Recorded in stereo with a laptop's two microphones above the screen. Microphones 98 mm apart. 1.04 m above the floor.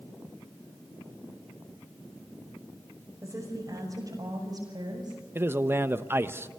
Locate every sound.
3.2 s a woman speaking: 30° right (ahead or behind), 5.5 m; by 5.2 s 45° right (ahead or behind), 6 m
5.3 s a man speaking: 25° right (ahead or behind), 1.0 m